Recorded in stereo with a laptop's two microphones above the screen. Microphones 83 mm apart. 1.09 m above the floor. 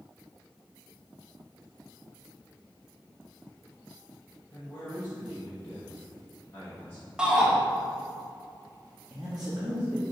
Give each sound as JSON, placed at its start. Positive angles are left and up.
{"t": 4.5, "sound": "a man speaking", "side_deg": 25, "distance_m": 1.4}
{"t": 7.2, "sound": "a shout", "side_deg": -10, "distance_m": 1.2}
{"t": 9.1, "sound": "a man speaking", "side_deg": -15, "distance_m": 1.1}